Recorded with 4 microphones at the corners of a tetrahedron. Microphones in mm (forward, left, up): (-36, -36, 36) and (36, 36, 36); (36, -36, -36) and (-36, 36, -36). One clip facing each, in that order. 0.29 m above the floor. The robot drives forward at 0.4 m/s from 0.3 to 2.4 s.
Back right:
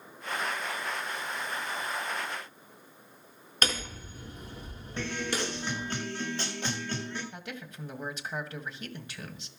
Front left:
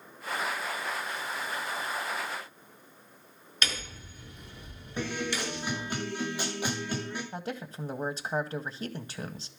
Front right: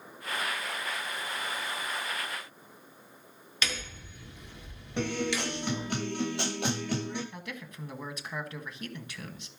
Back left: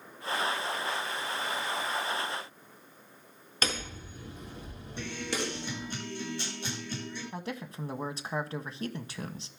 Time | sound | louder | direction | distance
3.6 | hammering | back right 3 dB, back left 3 dB | straight behind | 4 m
5.0 | a guitar | even, front right 5 dB | 35° right | 7.5 m
7.3 | a man speaking | front left 5 dB, back left 4 dB | 90° left | 1.8 m